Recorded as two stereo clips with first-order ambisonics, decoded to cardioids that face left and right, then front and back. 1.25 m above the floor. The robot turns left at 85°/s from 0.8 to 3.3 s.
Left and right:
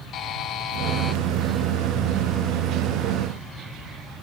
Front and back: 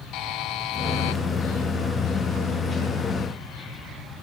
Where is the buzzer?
35° left, 0.9 m; by 1.2 s 5° left, 0.9 m.